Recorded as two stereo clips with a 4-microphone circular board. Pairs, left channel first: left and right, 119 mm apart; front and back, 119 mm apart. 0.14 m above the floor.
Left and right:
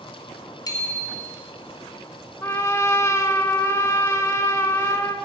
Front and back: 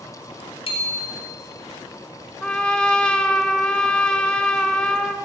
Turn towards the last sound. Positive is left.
turn(degrees=70)